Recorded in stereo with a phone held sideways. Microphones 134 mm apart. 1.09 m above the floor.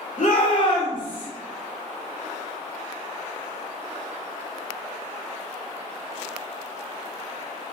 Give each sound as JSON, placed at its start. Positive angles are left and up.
{"t": 0.2, "sound": "a shout", "side_deg": 70, "distance_m": 1.1}